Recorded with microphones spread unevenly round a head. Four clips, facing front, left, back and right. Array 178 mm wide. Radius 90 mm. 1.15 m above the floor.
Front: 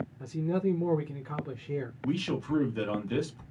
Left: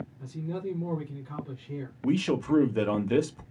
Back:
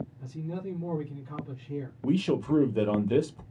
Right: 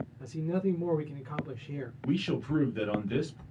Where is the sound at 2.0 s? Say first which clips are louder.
Left 5 dB, back 6 dB; 130° left, 0.6 m.